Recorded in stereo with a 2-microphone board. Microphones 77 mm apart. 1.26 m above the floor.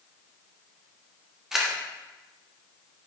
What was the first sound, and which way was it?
A camera shutter, 5° right (ahead or behind).